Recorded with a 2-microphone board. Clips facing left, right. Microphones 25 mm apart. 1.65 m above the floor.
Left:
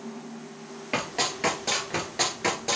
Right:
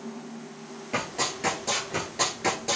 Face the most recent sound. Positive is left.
turn(degrees=10)  # may be behind; listen again after turning